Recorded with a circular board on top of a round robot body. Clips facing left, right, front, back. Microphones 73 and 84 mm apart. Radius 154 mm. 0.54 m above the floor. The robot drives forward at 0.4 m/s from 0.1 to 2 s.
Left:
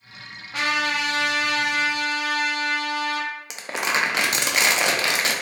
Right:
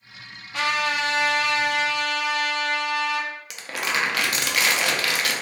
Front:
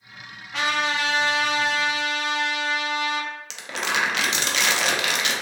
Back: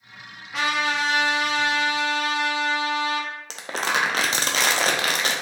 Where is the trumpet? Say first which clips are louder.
Even, even; 90° left, 1.3 m; by 3.3 s 125° left, 1.4 m.